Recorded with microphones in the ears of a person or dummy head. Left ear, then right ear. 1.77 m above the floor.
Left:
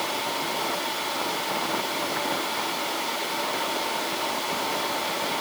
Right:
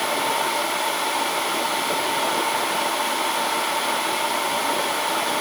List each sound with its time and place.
Only background noise.